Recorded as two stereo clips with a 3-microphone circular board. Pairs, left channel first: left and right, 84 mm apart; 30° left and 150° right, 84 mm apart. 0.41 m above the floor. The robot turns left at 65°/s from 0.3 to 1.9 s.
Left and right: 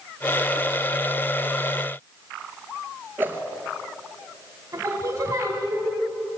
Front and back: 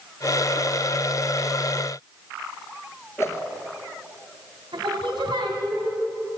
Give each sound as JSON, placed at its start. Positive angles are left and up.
{"t": 3.2, "sound": "a whoosh", "azimuth_deg": -25, "distance_m": 2.0}
{"t": 4.7, "sound": "singing", "azimuth_deg": -140, "distance_m": 2.5}